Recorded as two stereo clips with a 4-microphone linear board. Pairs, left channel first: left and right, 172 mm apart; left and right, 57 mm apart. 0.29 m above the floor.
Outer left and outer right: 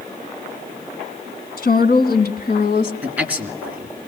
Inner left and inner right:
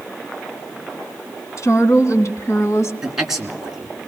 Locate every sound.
1.6 s a woman speaking: 65° left (ahead or behind), 2 m; by 2.9 s 60° left (ahead or behind), 1.9 m
3.0 s a man speaking: 10° right (ahead or behind), 3 m